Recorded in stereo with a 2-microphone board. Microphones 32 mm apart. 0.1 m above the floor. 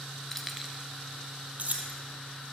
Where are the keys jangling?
15° left (ahead or behind), 1.0 m; by 2.0 s 50° right (ahead or behind), 2.5 m.